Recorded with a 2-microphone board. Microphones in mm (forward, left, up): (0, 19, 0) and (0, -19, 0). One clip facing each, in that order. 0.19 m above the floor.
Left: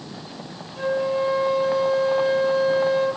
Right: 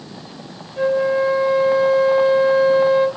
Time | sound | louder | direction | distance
0.8 | a flute | right 5 dB | 30° right (ahead or behind) | 1.5 m